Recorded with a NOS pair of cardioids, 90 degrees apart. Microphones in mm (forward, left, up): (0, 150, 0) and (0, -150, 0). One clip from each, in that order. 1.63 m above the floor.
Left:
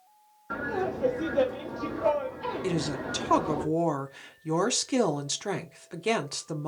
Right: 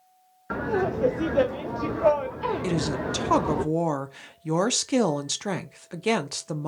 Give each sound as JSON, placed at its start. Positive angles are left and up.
{"t": 0.5, "sound": "laughter", "azimuth_deg": -30, "distance_m": 0.6}
{"t": 2.6, "sound": "a woman speaking", "azimuth_deg": -15, "distance_m": 0.7}